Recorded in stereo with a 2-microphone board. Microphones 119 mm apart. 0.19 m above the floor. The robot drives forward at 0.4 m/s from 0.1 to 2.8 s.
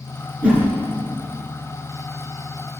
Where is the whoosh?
10° right (ahead or behind), 3.5 m.